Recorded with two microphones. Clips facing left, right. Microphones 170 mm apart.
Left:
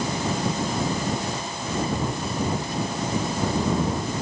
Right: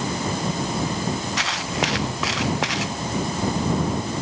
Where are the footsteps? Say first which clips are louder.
Right 2 dB; 75° right (ahead or behind); by 3.0 s 85° right.